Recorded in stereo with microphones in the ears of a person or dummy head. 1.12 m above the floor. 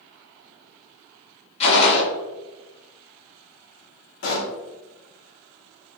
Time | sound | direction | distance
1.6 | a gunshot | 35° left (ahead or behind) | 1.1 m
4.2 | a pop | 60° left (ahead or behind) | 1.3 m